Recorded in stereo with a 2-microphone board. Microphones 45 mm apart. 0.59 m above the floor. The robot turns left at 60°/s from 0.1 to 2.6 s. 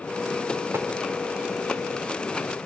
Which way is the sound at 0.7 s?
65° right (ahead or behind).